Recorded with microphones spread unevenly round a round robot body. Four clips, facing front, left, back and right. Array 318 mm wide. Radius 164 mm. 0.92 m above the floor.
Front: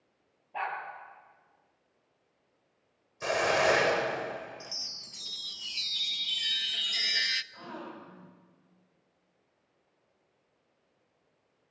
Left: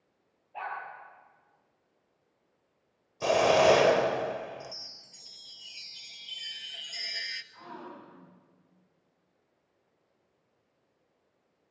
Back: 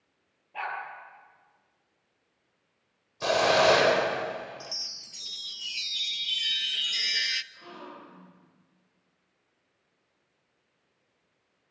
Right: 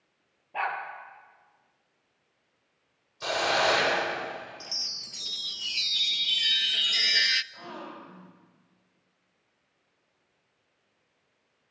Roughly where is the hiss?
Behind left.